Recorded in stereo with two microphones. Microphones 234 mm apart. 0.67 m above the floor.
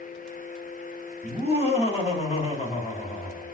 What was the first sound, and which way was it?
Laughter, 25° left (ahead or behind).